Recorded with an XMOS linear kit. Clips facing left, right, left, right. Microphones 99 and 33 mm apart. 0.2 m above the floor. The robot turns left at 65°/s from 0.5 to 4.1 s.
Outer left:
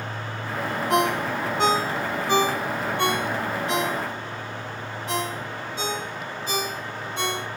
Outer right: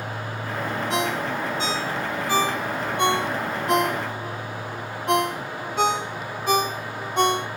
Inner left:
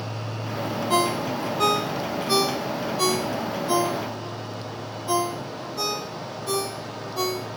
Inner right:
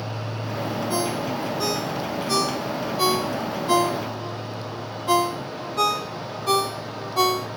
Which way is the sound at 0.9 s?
50° left (ahead or behind).